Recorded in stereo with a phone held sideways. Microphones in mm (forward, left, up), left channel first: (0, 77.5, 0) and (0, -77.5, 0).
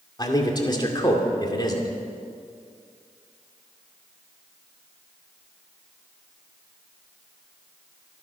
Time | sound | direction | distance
0.2 | a man speaking | 30° left (ahead or behind) | 2.5 m